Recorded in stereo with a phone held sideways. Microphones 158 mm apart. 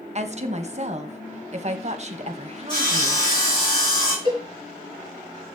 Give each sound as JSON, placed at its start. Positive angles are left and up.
{"t": 0.1, "sound": "a woman speaking", "side_deg": -45, "distance_m": 1.2}
{"t": 2.7, "sound": "sawing", "side_deg": 30, "distance_m": 7.0}
{"t": 4.2, "sound": "a cowbell", "side_deg": 30, "distance_m": 7.0}